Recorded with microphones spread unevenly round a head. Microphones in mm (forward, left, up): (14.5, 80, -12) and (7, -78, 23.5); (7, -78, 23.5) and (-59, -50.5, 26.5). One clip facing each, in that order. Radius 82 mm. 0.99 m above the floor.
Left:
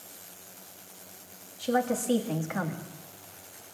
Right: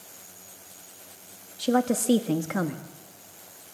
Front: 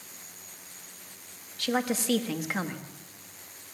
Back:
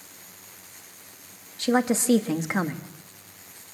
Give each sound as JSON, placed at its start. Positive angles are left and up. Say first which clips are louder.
{"t": 1.6, "sound": "a woman speaking", "louder": "right 4 dB, back 6 dB", "azimuth_deg": -140, "distance_m": 1.5}